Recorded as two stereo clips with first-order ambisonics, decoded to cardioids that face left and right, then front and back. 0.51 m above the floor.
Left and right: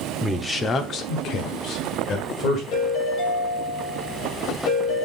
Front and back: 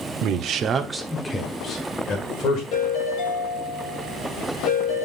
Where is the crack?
No crack in this recording.